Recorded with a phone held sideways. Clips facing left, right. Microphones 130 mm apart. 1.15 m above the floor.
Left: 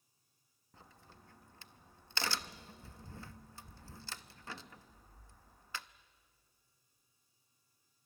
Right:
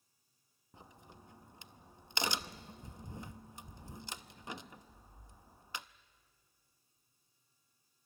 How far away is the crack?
About 0.5 m.